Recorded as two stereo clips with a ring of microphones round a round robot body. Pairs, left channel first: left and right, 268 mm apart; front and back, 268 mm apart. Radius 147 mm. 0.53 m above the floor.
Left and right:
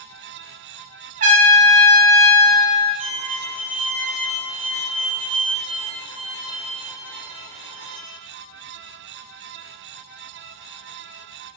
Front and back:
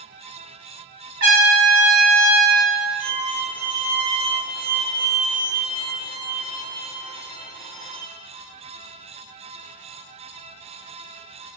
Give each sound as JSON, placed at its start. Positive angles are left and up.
{"t": 1.2, "sound": "a trumpet", "azimuth_deg": -135, "distance_m": 1.4}
{"t": 3.0, "sound": "a violin", "azimuth_deg": 95, "distance_m": 2.5}